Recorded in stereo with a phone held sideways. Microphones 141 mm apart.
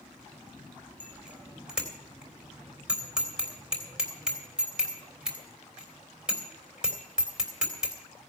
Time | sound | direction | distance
1.0 | a bicycle bell | 5° right (ahead or behind) | 3 m